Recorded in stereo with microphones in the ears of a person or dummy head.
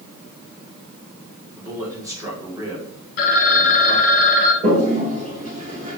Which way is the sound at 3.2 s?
60° left (ahead or behind).